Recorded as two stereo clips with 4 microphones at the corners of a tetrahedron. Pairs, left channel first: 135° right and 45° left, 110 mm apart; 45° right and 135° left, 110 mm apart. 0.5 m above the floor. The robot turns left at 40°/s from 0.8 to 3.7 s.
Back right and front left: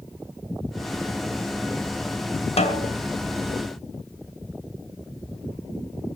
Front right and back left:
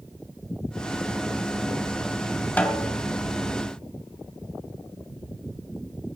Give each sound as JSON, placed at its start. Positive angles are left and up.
{"t": 2.6, "sound": "a snare drum", "azimuth_deg": -120, "distance_m": 2.5}